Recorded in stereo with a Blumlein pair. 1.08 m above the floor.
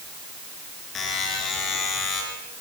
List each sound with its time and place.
0.9 s a buzzer: 25° left, 6 m